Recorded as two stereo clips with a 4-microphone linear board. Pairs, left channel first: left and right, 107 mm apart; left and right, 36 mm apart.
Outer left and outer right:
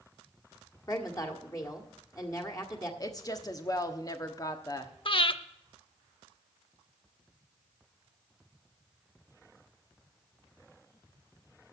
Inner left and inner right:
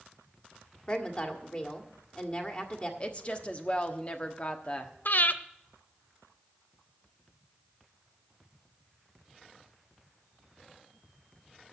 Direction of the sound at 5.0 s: 55° left (ahead or behind).